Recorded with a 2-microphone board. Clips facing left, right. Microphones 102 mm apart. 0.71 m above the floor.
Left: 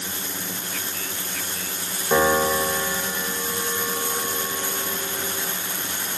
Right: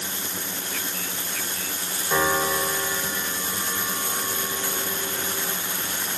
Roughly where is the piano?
Left.